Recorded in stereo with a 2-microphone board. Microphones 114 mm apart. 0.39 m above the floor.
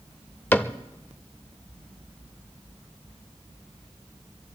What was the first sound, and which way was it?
A cupboard door, 15° left (ahead or behind).